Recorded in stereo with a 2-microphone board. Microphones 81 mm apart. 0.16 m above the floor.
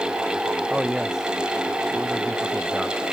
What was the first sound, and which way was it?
A man speaking, 10° right (ahead or behind).